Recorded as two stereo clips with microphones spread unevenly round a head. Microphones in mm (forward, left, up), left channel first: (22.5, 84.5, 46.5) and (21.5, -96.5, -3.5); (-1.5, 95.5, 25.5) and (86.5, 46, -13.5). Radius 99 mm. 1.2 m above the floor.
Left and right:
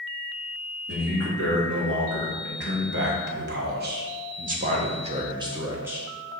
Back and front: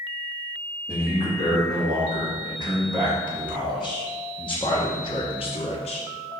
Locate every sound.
0.9 s a man speaking: 85° right, 3 m; by 6.1 s 165° right, 1.2 m